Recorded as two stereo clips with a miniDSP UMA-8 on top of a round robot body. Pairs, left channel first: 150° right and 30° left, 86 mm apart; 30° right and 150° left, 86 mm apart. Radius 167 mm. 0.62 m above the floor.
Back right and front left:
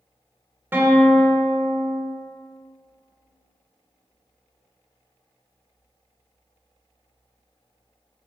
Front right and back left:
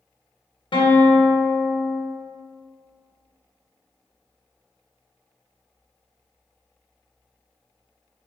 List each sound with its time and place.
0.7 s a guitar: 35° right, 1.2 m